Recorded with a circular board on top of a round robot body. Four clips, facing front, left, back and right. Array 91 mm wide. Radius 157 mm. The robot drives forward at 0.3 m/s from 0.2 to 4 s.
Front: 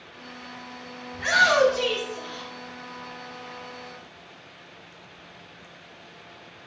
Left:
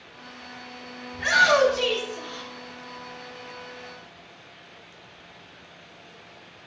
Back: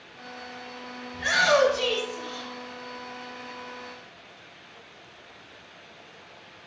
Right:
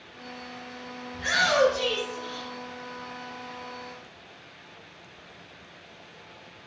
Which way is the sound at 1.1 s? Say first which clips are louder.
Left 4 dB, front 1 dB; 55° left.